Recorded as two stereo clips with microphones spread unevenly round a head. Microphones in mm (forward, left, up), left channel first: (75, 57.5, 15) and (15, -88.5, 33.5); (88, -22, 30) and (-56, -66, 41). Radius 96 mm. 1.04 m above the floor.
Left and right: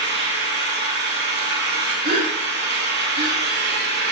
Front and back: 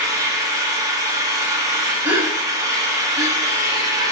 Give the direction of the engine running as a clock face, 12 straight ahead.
3 o'clock.